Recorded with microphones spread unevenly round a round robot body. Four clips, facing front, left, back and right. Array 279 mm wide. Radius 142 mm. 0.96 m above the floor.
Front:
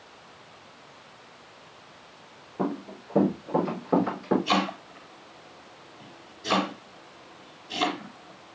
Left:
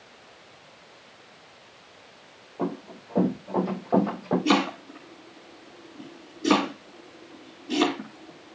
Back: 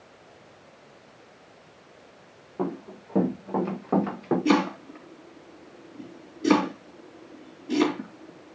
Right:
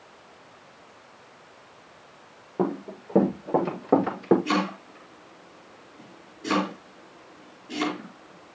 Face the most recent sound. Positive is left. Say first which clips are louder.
# left 3 dB, back 4 dB
turn(degrees=160)